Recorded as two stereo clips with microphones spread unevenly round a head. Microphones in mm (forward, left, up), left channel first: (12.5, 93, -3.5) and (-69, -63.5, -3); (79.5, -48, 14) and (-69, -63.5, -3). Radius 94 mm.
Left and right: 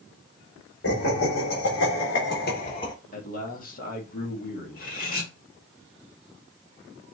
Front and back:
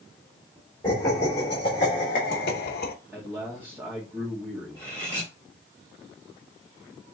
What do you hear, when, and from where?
0.8 s laughter: 85° left, 1.9 m; by 2.9 s 5° right, 0.9 m
3.1 s a man speaking: 105° left, 1.4 m
4.7 s cutlery clinking: 110° left, 1.4 m